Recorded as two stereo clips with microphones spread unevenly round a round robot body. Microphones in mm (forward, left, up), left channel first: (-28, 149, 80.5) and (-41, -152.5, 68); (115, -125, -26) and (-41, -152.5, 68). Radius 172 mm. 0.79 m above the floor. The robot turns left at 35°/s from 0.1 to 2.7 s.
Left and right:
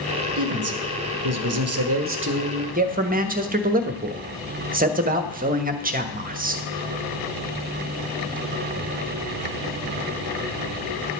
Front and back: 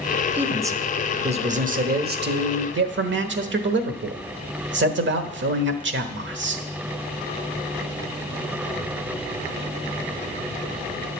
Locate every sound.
0.4 s a man speaking: 65° right, 1.2 m; by 6.6 s 150° right, 1.2 m